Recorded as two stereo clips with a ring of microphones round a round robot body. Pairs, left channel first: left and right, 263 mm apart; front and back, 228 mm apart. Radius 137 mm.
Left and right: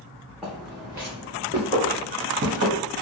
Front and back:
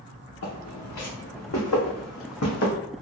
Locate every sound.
0.4 s footsteps: straight ahead, 1.8 m; by 2.7 s 50° right, 1.2 m